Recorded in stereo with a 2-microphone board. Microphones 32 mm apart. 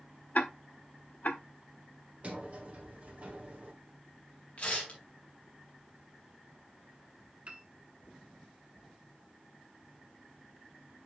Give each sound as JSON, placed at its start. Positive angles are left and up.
{"t": 0.3, "sound": "ticking", "side_deg": 55, "distance_m": 1.0}
{"t": 2.2, "sound": "a sliding door", "side_deg": -50, "distance_m": 1.7}
{"t": 4.6, "sound": "tearing paper", "side_deg": 50, "distance_m": 3.0}
{"t": 7.5, "sound": "a piano", "side_deg": -40, "distance_m": 1.1}